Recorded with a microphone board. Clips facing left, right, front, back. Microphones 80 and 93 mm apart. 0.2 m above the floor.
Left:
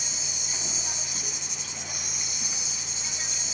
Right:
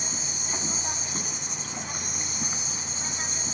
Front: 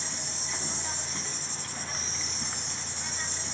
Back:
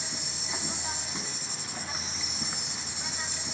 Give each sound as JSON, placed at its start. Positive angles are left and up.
{"t": 0.0, "sound": "an insect", "azimuth_deg": -110, "distance_m": 2.5}